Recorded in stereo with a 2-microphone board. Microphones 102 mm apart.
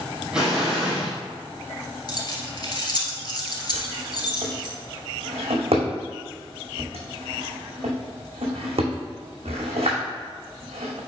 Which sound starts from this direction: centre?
An explosion, at 0.3 s.